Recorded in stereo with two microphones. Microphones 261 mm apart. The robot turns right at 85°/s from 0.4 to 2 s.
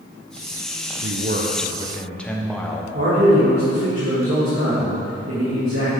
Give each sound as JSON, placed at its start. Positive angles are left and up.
{"t": 1.0, "sound": "a man speaking", "azimuth_deg": -80, "distance_m": 0.7}
{"t": 2.9, "sound": "a man speaking", "side_deg": -55, "distance_m": 2.0}